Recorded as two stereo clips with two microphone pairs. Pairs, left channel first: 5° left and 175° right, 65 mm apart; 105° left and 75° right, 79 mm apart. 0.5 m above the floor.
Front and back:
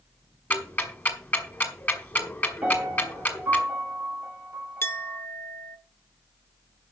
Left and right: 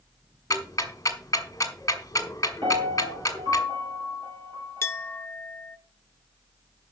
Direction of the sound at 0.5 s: 60° left.